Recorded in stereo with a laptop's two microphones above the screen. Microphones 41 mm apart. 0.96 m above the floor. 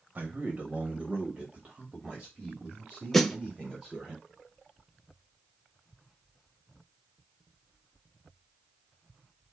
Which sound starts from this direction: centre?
A snare drum, at 3.1 s.